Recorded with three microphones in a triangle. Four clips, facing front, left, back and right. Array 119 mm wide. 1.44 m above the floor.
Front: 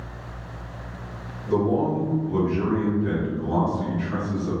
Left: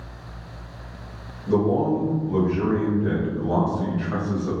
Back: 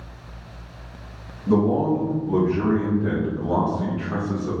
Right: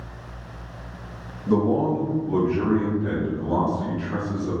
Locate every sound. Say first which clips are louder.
1.5 s a man speaking: even, back 3 dB; 150° right, 1.5 m; by 4.5 s 120° left, 1.3 m